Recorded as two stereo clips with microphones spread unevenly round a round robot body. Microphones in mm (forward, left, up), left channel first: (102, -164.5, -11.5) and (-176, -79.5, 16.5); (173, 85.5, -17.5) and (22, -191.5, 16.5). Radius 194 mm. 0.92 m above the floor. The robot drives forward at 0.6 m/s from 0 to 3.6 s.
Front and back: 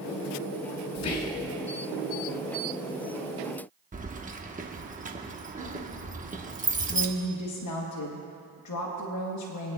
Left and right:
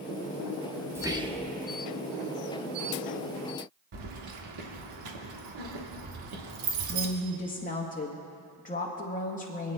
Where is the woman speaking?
Straight ahead, 1.1 m.